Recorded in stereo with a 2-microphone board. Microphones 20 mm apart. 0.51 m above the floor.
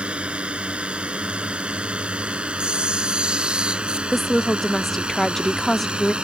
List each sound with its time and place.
0.0 s a drone: 70° right (ahead or behind); by 6.2 s 60° right (ahead or behind)
2.6 s a camera shutter: 55° right (ahead or behind)
4.1 s a woman speaking: 10° left (ahead or behind)